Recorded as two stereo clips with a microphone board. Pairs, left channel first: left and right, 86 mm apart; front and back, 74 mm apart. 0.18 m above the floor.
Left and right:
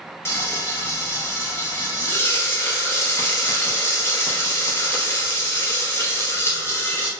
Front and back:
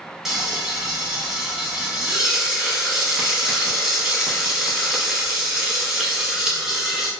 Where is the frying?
100° left, 0.7 m.